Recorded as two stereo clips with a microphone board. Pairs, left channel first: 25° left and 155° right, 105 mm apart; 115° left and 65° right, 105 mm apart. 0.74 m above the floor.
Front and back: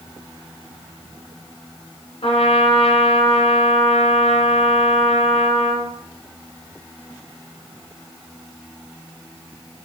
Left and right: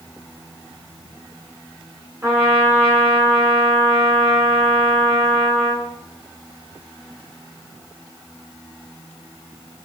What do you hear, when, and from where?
2.2 s a trumpet: straight ahead, 2.5 m